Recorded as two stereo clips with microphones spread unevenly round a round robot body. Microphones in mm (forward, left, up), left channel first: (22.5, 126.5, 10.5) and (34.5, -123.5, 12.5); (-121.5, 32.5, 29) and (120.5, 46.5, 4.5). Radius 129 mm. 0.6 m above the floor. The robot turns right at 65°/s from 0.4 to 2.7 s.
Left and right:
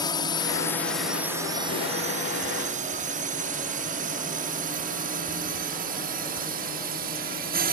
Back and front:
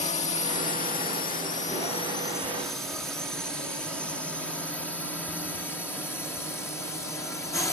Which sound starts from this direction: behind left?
A drone, at 0.0 s.